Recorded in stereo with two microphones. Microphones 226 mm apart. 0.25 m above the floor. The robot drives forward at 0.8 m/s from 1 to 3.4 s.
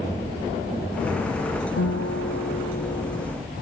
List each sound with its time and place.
1.8 s a guitar: 80° left